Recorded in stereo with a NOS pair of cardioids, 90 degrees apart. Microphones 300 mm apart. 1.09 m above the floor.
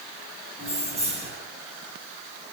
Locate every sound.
0.6 s keys jangling: 20° right, 6 m